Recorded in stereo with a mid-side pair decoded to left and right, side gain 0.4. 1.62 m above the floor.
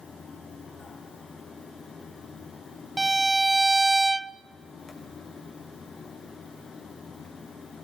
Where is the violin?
20° right, 0.5 m.